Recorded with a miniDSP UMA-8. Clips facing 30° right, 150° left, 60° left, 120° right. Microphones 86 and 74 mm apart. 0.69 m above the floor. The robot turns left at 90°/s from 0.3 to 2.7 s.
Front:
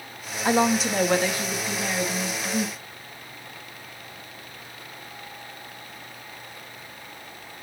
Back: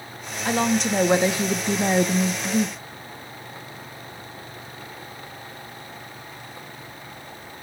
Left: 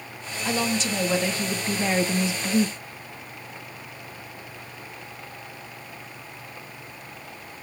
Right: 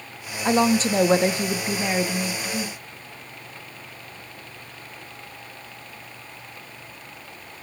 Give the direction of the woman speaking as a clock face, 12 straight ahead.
3 o'clock.